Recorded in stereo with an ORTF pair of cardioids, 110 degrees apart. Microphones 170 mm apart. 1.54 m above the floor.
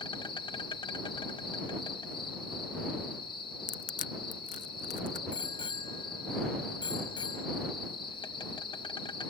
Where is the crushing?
45° left.